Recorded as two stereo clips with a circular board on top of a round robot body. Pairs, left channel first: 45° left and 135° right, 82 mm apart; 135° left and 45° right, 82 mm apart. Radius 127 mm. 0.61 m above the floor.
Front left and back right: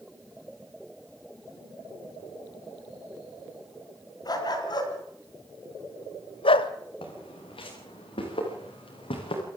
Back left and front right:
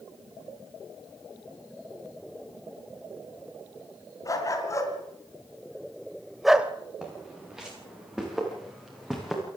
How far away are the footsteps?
About 7 m.